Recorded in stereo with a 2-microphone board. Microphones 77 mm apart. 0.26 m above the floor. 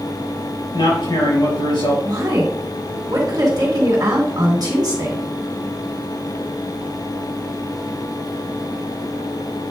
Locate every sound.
0.7 s a man speaking: 75° left (ahead or behind), 4.5 m
2.0 s a woman speaking: 55° right (ahead or behind), 3 m